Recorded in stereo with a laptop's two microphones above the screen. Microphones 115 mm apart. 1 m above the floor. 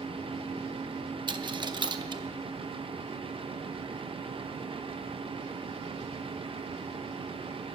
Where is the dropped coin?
40° right (ahead or behind), 0.6 m.